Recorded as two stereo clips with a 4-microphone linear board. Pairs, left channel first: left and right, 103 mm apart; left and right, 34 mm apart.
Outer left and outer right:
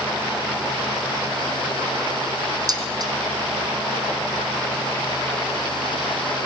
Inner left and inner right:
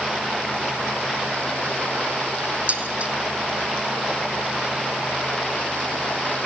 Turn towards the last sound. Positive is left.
turn(degrees=-40)  # may be behind; listen again after turning